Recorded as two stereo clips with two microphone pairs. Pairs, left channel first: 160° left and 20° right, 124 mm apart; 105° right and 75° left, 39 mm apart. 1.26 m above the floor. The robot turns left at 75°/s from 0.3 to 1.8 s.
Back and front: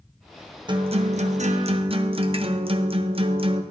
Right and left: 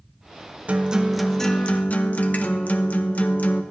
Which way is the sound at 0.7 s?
25° left.